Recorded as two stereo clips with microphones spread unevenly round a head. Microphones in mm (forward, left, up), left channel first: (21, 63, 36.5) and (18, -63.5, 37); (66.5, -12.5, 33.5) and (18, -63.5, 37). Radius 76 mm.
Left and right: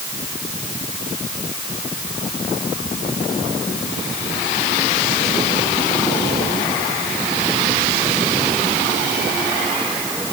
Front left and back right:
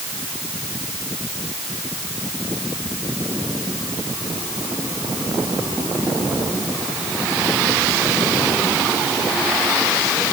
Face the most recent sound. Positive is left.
No sound to turn to.